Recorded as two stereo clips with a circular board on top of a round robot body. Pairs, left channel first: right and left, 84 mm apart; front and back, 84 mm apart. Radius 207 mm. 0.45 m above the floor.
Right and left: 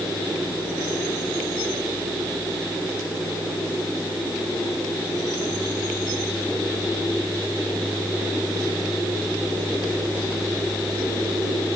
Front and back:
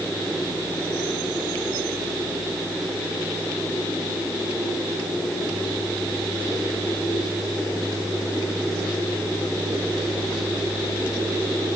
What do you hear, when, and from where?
Only background noise.